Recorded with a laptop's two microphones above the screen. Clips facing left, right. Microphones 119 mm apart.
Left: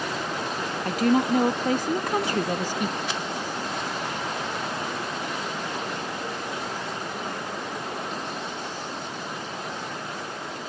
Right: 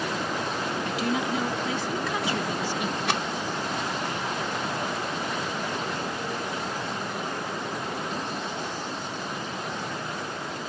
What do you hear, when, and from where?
0.8 s a woman speaking: 45° left (ahead or behind)
3.1 s a rattle: 75° right (ahead or behind)